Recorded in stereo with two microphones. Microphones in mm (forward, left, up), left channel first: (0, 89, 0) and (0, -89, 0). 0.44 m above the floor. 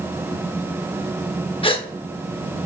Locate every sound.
1.6 s a gasp: 30° left (ahead or behind), 0.5 m